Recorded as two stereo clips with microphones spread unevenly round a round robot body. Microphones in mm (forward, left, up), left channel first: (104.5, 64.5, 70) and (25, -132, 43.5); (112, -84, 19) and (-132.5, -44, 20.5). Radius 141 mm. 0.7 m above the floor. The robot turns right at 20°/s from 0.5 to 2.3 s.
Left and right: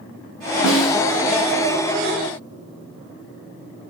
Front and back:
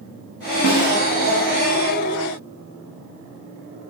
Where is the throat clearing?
I don't hear throat clearing.